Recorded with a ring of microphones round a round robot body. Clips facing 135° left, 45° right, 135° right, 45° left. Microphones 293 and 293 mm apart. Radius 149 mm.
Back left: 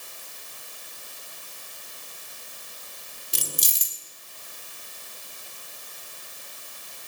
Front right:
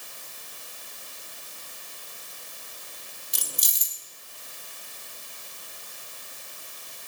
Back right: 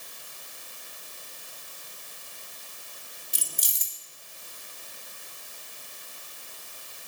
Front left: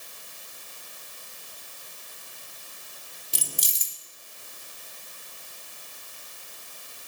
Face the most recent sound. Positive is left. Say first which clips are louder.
# back left 6 dB, front left 7 dB
turn(degrees=75)